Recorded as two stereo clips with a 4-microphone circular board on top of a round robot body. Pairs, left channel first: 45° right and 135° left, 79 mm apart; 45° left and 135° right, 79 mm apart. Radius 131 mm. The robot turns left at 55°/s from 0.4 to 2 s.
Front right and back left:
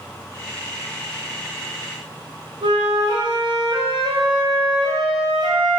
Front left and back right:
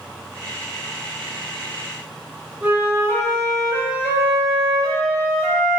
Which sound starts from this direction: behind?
A flute, at 2.6 s.